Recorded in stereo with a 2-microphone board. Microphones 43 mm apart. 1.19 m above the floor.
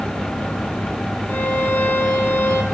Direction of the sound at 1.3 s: 50° left (ahead or behind).